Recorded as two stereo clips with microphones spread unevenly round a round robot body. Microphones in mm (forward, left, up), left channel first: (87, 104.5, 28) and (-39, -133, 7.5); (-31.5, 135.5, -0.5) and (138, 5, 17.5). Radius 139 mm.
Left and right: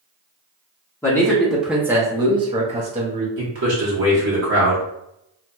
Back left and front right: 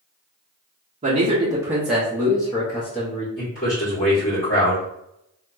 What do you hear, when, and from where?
1.0 s a man speaking: 15° right, 0.8 m; by 3.3 s 170° right, 1.1 m
3.4 s a man speaking: 160° right, 1.5 m